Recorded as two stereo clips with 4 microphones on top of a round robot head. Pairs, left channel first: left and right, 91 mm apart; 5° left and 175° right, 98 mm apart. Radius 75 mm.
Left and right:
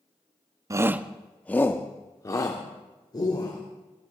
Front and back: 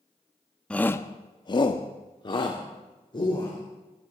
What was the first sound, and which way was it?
A shout, 65° right.